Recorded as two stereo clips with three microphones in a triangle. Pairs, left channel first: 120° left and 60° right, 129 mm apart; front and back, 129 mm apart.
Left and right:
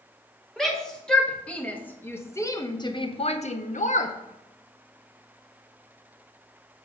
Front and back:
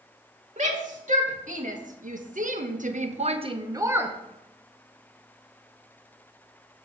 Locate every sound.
0.6 s a shout: 150° right, 2 m; by 4.2 s 100° left, 0.8 m